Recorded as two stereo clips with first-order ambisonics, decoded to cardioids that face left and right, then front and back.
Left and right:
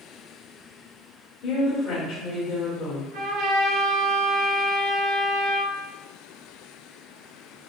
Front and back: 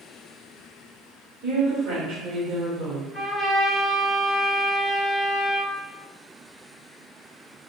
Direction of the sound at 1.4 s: 140° left.